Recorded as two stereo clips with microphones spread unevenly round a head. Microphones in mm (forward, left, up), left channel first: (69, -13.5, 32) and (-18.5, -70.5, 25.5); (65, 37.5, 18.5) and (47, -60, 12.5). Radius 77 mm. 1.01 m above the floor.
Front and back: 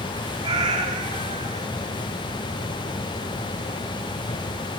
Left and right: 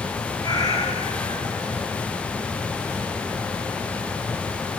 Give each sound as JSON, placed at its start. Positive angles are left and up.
{"t": 0.4, "sound": "a cat meowing", "azimuth_deg": 150, "distance_m": 5.0}